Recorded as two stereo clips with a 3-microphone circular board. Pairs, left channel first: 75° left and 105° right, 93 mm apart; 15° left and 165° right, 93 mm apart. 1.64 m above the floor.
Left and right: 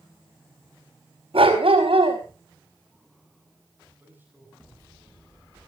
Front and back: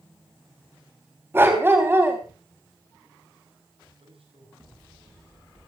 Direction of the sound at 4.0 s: 175° right.